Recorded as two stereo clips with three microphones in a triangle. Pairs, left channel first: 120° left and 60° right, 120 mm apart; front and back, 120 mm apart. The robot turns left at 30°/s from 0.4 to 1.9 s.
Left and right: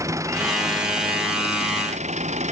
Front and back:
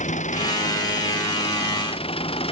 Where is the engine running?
5° left; by 2.5 s 40° right.